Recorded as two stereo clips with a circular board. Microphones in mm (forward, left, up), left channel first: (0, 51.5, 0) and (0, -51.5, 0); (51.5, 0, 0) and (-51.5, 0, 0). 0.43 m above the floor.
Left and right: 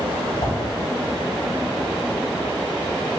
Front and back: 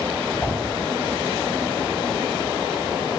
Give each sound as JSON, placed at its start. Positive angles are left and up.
{"t": 0.4, "sound": "a whoosh", "azimuth_deg": 85, "distance_m": 0.7}